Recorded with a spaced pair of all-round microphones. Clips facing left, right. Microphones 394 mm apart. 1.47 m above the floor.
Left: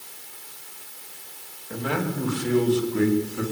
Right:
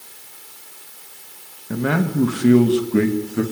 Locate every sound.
1.7 s a man speaking: 65° right (ahead or behind), 2.5 m; by 3.4 s 75° right (ahead or behind), 3 m